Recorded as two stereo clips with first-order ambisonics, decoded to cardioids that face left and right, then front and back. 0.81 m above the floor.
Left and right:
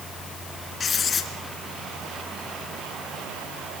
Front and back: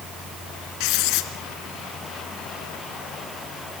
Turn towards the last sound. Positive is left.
turn(degrees=20)